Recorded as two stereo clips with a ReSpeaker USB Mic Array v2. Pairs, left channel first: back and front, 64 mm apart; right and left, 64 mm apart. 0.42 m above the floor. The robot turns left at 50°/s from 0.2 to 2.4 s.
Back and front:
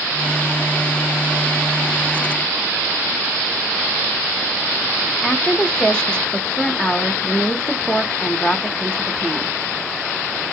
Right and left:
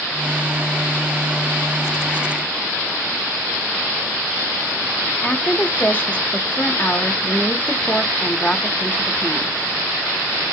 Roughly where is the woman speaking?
Behind right.